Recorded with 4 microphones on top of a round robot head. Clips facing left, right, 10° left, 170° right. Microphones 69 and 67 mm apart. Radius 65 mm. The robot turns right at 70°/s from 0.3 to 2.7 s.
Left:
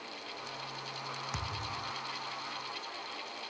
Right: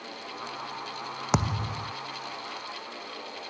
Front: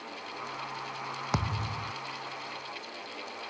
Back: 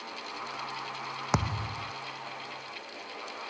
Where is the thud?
95° right; by 1.9 s 55° right.